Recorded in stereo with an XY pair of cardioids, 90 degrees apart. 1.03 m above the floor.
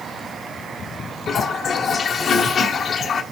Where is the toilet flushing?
60° left, 1.5 m.